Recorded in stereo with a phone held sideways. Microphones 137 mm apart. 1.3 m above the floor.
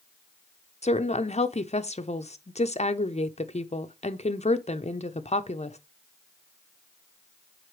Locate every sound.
0.8 s a woman speaking: 55° left (ahead or behind), 0.7 m